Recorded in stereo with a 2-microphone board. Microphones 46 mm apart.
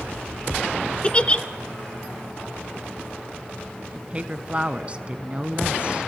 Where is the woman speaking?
30° right (ahead or behind), 1.2 m.